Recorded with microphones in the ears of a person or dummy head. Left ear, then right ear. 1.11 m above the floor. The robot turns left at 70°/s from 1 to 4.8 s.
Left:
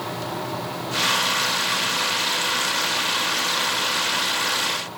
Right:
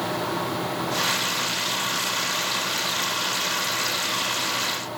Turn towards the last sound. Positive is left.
No sound to turn to.